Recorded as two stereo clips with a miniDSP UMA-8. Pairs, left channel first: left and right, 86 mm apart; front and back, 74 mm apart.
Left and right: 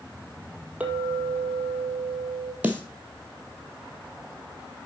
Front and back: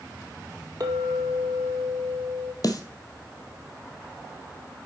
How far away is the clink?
About 1.9 m.